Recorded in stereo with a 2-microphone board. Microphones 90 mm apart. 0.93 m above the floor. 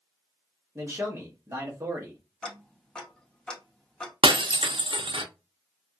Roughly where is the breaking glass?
Right.